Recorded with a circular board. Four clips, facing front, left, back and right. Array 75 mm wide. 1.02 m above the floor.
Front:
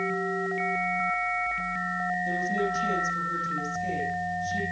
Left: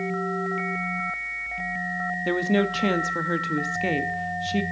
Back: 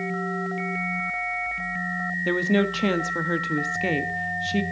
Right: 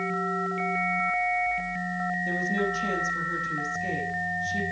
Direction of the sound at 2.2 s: 140° left.